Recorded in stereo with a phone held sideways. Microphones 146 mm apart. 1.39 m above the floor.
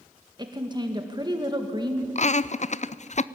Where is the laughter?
50° left (ahead or behind), 0.5 m.